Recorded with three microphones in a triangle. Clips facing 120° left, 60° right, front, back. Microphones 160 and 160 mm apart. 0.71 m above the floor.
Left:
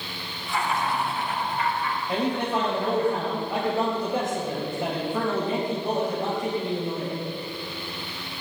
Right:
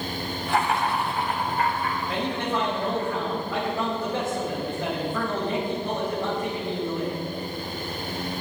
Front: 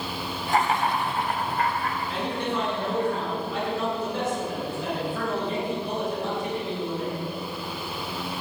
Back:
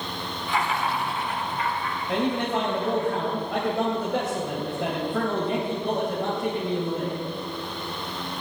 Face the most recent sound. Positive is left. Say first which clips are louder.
# left 4 dB, back 7 dB
turn(degrees=-170)